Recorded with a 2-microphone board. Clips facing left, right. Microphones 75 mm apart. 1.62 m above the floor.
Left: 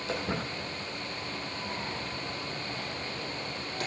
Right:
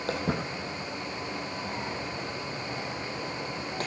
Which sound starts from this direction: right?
Footsteps, at 0.1 s.